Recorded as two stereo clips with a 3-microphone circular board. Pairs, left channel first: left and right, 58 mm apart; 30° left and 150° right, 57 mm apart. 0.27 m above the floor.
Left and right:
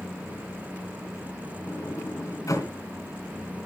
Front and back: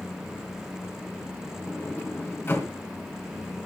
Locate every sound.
1.7 s a sliding door: 75° left, 3 m